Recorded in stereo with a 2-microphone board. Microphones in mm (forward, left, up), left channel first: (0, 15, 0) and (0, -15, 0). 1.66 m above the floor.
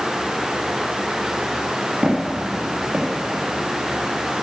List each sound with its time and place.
2.0 s footsteps: 35° right (ahead or behind), 2.5 m; by 4.3 s 15° right (ahead or behind), 1.7 m